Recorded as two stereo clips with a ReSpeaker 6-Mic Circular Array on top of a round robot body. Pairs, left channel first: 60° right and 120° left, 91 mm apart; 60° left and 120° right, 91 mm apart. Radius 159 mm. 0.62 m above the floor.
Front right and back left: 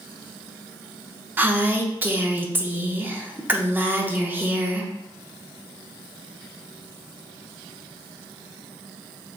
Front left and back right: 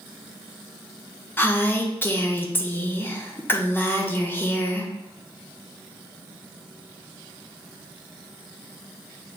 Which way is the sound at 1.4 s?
85° left.